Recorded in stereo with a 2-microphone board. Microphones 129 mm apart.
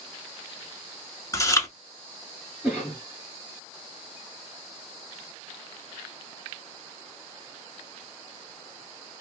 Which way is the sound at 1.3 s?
25° left (ahead or behind).